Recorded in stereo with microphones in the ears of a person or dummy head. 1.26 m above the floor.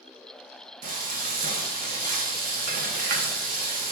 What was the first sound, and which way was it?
Frying, 45° right (ahead or behind).